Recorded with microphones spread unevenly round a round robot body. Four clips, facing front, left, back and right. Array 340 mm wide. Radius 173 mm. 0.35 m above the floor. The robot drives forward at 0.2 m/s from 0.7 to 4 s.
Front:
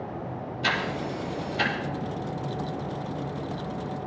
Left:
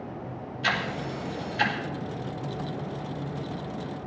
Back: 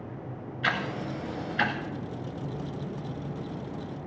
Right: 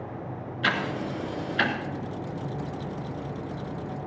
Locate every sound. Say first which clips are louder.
0.6 s ticking: right 2 dB, front 1 dB; 85° right, 3 m; by 1.7 s 90° right, 3 m